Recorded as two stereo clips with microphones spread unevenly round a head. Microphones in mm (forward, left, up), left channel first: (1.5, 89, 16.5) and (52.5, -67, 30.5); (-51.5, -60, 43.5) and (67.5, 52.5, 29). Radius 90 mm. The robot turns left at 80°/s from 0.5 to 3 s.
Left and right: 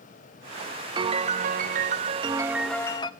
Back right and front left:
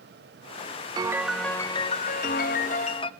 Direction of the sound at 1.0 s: 20° right.